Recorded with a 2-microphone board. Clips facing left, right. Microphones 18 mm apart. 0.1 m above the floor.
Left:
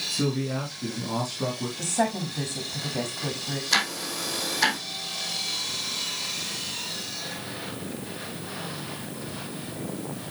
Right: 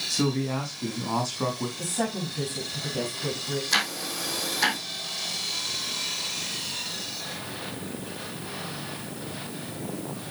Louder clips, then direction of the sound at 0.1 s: Right 2 dB; 35° right (ahead or behind).